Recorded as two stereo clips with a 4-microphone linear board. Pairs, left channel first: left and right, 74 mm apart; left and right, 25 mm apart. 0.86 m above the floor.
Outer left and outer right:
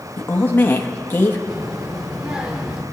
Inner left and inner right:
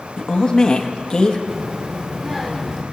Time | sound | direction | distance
0.2 | a woman speaking | 25° left (ahead or behind) | 1.4 m
1.5 | a child speaking | 10° right (ahead or behind) | 1.9 m